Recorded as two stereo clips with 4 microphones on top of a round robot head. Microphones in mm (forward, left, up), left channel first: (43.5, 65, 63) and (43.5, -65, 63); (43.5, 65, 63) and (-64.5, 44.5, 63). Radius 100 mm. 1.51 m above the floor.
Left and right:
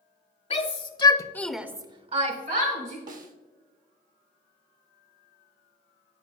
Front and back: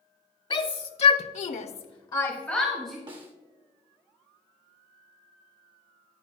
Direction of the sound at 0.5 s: 50° left.